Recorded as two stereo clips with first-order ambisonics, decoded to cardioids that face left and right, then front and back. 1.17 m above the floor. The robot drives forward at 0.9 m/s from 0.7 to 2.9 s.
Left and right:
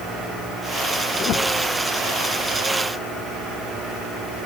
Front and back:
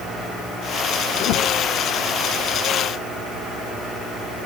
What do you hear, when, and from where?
1.2 s a whoosh: 35° left; by 1.5 s 45° left